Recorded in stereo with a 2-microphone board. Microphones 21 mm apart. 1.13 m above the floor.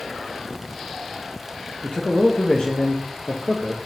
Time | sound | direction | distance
1.8 | a man speaking | 60° left (ahead or behind) | 0.9 m